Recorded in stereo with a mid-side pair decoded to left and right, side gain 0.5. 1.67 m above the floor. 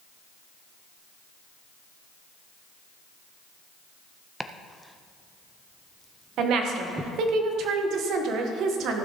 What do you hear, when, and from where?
4.4 s chopping: 5° right, 0.7 m
6.4 s a woman speaking: 70° right, 1.6 m